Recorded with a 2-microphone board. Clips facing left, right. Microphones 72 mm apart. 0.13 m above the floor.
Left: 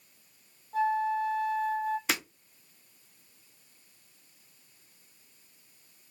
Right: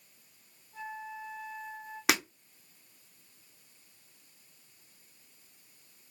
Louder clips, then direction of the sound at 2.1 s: Right 3 dB; 70° right (ahead or behind).